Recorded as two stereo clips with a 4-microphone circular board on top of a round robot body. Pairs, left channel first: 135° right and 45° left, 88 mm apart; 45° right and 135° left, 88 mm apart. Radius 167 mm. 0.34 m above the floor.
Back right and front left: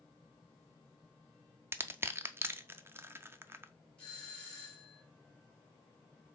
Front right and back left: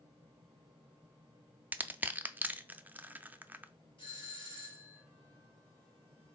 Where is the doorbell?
55° right, 2.5 m.